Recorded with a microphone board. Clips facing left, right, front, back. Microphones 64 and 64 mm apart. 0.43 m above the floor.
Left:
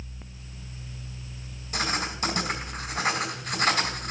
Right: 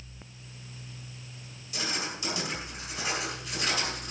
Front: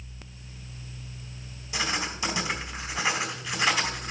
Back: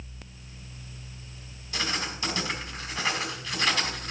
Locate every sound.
1.7 s writing: 70° left, 2 m